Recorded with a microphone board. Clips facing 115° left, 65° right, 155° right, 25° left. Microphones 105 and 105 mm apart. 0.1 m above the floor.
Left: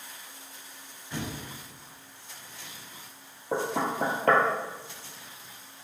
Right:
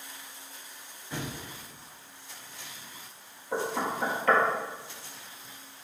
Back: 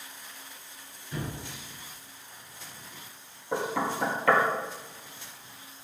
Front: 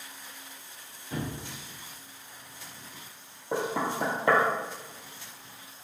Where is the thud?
10° left, 3 m.